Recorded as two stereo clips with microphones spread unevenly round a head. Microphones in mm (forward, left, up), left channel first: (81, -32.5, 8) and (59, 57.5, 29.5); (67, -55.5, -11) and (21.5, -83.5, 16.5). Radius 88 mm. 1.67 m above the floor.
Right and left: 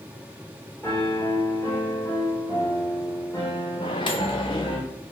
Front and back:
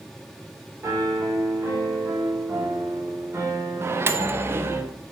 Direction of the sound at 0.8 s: 160° right.